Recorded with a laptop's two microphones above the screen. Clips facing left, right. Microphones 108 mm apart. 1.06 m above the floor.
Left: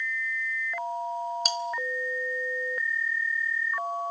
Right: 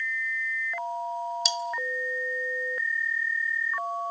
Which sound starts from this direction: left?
Cutlery clinking, at 1.4 s.